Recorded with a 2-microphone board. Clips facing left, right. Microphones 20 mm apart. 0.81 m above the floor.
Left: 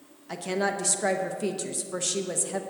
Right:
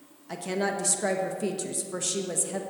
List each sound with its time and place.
0.3 s a woman speaking: 10° left (ahead or behind), 0.8 m